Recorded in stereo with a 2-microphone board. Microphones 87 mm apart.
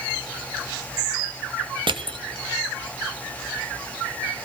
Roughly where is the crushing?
Right.